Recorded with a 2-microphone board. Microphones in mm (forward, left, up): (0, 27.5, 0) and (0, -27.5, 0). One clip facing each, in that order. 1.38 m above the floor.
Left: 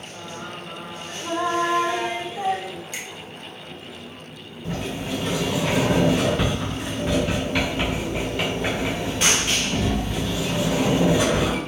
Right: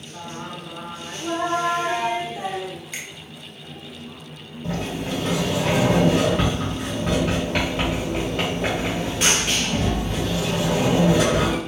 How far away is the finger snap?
About 0.8 m.